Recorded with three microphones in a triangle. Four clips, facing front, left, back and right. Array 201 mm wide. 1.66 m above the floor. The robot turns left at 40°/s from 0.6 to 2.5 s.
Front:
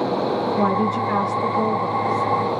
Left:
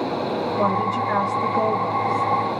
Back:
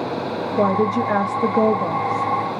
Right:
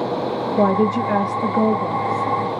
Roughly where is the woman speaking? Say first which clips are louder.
Right 6 dB, back 6 dB; behind right.